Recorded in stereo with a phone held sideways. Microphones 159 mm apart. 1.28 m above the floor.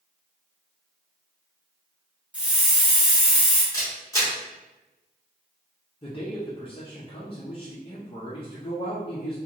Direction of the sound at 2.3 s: 5° right (ahead or behind).